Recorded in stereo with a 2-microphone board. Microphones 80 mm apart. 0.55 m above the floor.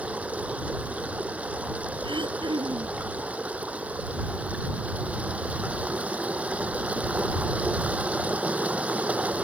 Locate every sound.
0.0 s running water: 15° right (ahead or behind)
2.0 s throat clearing: 85° right